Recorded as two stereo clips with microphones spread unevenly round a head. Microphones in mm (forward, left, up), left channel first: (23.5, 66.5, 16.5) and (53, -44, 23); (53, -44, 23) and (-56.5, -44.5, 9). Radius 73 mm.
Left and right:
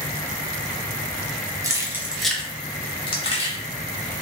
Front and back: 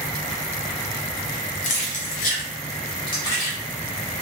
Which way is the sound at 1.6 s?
10° right.